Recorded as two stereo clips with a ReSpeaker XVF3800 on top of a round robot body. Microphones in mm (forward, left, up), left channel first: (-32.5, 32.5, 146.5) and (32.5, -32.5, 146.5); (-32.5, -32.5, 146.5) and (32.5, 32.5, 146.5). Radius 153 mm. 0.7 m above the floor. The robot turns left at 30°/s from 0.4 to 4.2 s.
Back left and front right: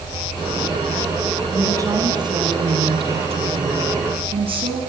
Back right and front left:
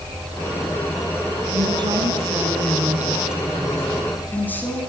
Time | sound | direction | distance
1.5 | a woman speaking | 15° left | 7 m